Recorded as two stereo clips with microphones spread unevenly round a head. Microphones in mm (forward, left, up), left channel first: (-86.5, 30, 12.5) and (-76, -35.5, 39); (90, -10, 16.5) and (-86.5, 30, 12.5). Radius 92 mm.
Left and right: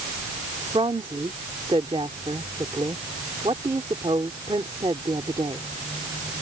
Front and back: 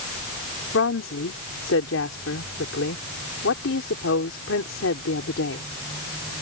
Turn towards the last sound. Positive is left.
turn(degrees=-40)